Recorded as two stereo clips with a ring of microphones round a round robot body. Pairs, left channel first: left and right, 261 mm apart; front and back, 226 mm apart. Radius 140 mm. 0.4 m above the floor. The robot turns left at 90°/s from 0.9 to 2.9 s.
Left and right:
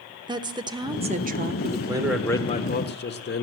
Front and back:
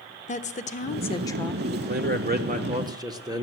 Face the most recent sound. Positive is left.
turn(degrees=115)